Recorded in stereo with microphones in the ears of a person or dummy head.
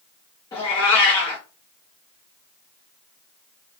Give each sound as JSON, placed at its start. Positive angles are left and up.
{"t": 0.5, "sound": "a cat meowing", "side_deg": 25, "distance_m": 1.1}